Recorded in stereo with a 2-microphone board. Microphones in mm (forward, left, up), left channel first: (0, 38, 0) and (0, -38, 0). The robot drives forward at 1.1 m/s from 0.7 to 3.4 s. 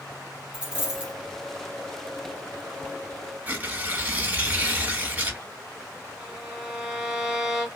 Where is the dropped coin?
15° right (ahead or behind), 2.5 m; by 1.1 s 20° right (ahead or behind), 2 m.